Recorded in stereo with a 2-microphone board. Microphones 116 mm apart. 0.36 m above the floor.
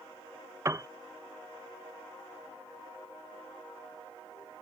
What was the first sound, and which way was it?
A piano, 25° right (ahead or behind).